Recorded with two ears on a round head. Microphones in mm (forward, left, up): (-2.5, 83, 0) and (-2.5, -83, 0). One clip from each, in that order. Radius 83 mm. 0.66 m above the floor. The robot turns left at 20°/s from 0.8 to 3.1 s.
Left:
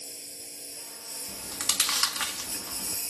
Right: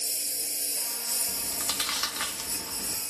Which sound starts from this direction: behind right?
A lawn mower, at 0.0 s.